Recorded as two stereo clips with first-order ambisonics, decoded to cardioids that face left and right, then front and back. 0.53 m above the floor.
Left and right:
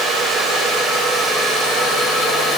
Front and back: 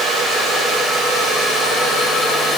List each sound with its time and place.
Only background noise.